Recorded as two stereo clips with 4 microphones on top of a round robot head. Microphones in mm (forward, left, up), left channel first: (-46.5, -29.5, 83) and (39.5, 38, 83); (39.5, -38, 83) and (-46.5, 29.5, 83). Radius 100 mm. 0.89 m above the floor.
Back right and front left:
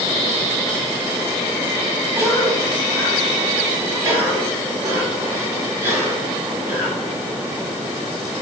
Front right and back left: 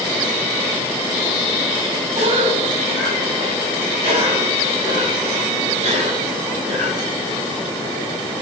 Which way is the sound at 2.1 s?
105° left.